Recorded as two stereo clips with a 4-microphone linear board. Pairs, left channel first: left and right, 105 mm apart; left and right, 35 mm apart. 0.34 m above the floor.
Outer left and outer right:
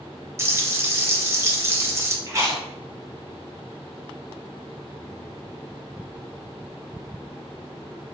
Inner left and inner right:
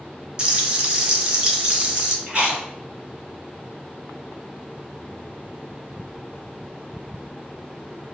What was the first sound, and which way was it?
Frying, 25° right (ahead or behind).